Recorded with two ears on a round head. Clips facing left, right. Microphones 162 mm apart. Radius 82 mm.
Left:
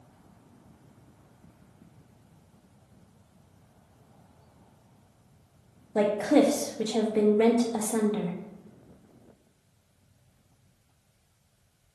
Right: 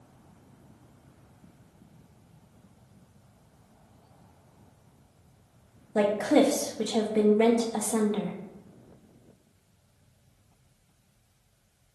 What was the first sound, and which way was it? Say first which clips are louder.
A woman speaking: even; centre (ahead or behind).